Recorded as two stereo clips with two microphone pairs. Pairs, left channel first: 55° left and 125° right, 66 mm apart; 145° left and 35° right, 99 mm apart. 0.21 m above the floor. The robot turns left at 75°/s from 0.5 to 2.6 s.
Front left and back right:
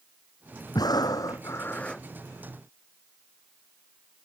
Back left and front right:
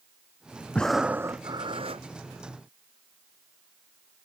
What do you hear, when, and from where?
0.8 s breathing: 65° left; by 2.0 s 30° right